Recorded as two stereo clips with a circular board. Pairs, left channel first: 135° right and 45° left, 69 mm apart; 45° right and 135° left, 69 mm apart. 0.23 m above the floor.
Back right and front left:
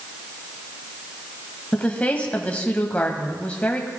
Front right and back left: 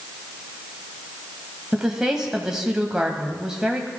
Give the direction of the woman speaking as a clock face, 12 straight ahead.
5 o'clock.